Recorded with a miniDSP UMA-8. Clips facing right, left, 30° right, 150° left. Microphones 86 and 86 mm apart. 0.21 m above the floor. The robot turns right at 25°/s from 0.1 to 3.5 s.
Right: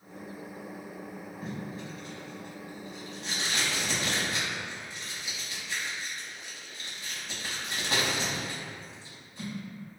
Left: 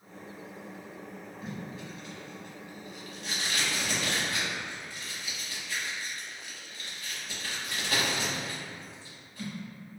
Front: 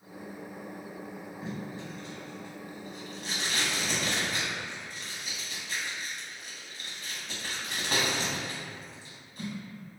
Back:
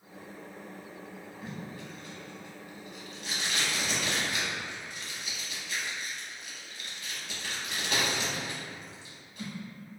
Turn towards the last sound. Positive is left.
turn(degrees=-35)